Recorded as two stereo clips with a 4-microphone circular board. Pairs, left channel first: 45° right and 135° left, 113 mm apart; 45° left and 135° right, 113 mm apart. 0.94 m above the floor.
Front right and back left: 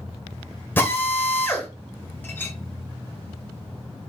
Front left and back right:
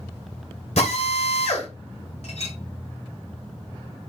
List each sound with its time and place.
0.8 s a drill: 25° left, 2.5 m
2.2 s a clink: 25° left, 3 m